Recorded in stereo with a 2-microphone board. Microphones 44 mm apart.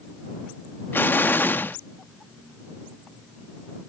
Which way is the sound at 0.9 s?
50° left (ahead or behind).